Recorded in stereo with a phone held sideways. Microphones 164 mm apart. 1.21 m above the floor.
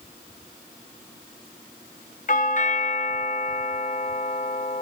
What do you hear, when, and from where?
2.3 s a doorbell: 50° left (ahead or behind), 0.7 m